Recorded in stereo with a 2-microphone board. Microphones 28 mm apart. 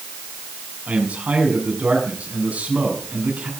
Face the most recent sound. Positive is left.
turn(degrees=-60)  # may be behind; listen again after turning